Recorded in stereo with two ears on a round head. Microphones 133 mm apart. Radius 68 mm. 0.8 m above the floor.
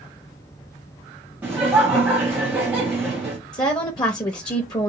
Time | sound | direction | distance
1.4 | laughter | 10° right (ahead or behind) | 0.9 m
3.5 | a woman speaking | 30° left (ahead or behind) | 0.6 m